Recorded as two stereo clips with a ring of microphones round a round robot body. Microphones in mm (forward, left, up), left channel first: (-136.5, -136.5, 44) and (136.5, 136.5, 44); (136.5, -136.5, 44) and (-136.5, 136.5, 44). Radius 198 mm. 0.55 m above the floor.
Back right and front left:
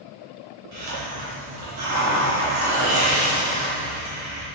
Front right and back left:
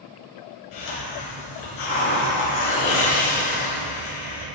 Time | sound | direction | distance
0.7 | a hiss | 5° right | 4 m